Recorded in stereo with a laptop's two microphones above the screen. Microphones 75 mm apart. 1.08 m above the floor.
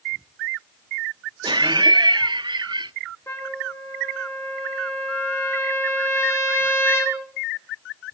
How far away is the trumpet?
About 4 m.